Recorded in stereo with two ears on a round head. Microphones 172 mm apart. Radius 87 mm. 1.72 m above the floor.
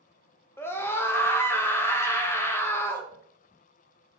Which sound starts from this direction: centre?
A scream, at 0.6 s.